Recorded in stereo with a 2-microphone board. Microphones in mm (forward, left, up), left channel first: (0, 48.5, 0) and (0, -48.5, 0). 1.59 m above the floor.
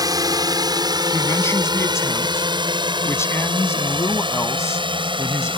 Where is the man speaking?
30° left (ahead or behind).